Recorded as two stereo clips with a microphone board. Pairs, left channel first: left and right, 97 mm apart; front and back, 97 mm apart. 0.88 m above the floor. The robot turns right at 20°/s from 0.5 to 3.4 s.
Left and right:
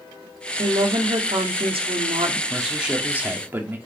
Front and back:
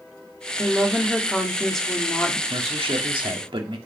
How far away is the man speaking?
About 2 m.